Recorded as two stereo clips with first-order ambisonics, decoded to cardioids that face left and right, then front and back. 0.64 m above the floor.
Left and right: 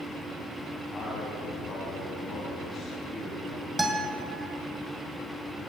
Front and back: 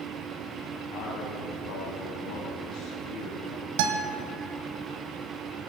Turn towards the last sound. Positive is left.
turn(degrees=-175)